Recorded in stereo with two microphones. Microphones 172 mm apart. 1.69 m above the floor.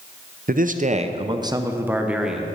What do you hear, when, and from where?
0.5 s a man speaking: 55° right (ahead or behind), 0.8 m; by 2.5 s centre (ahead or behind), 1.3 m